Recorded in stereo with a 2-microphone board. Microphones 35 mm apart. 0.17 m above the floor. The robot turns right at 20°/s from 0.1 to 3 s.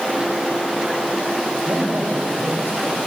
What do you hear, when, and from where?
1.6 s a man speaking: 70° right (ahead or behind), 6.5 m; by 3.0 s 75° right (ahead or behind), 6.5 m